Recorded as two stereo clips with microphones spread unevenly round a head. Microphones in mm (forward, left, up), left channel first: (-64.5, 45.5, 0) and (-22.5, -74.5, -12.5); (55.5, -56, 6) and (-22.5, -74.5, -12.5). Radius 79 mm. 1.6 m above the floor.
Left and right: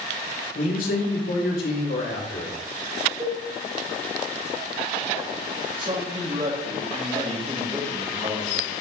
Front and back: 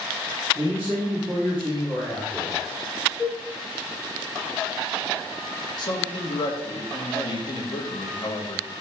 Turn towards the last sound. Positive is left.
turn(degrees=-10)